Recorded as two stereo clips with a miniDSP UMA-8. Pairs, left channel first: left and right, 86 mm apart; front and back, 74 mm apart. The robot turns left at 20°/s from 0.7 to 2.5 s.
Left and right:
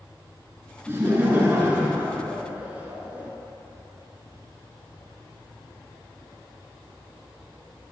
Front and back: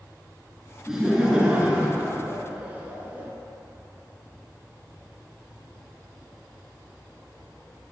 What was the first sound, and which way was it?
Laughter, 105° right.